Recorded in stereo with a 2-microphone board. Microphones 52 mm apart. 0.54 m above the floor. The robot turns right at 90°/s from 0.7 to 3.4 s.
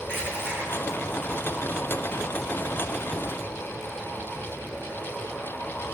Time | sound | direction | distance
0.1 | crushing | 45° left (ahead or behind) | 4 m